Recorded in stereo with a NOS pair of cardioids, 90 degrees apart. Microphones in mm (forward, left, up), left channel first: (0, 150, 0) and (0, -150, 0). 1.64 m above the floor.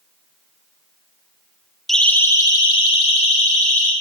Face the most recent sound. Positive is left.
turn(degrees=25)